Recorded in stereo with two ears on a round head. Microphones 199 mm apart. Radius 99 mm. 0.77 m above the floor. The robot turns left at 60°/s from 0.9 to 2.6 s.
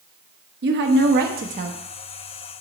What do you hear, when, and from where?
0.6 s a woman speaking: 90° right, 1.0 m; by 1.8 s 145° right, 1.0 m